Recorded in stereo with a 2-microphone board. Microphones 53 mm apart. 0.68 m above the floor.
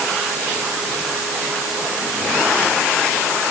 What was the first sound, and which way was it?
Only background noise.